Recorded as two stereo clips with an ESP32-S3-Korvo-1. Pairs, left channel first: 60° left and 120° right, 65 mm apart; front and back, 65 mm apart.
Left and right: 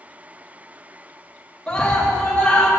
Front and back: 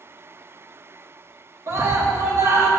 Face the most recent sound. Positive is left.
turn(degrees=140)